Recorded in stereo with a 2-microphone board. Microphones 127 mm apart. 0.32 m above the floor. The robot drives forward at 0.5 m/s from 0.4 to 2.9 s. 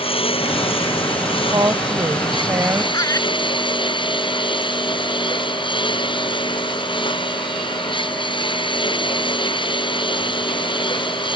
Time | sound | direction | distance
0.0 | a lawn mower | 45° left (ahead or behind) | ?
1.5 | a woman speaking | 30° right (ahead or behind) | ?
2.9 | laughter | 30° left (ahead or behind) | ?